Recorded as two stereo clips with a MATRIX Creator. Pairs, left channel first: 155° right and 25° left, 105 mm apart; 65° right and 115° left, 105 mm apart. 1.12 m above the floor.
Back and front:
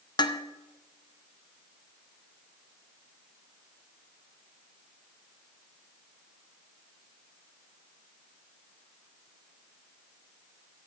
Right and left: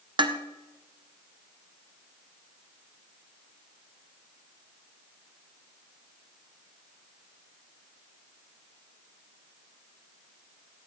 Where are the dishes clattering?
155° left, 0.8 m.